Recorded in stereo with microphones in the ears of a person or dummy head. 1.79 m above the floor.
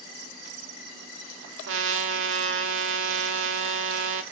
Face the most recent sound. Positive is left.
turn(degrees=-75)  # may be behind; listen again after turning